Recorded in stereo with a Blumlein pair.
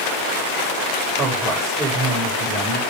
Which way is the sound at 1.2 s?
20° right.